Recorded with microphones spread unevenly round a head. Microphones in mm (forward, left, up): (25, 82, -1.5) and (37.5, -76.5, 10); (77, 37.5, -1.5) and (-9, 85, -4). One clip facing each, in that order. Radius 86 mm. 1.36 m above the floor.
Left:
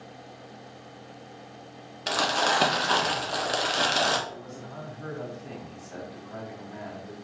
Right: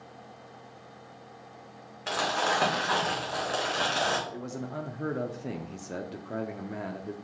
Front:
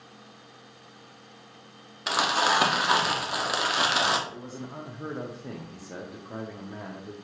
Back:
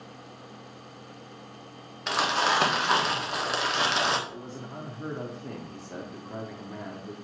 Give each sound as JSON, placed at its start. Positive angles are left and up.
{"t": 2.1, "sound": "crumpling", "azimuth_deg": 50, "distance_m": 1.4}
{"t": 4.3, "sound": "a man speaking", "azimuth_deg": -115, "distance_m": 0.5}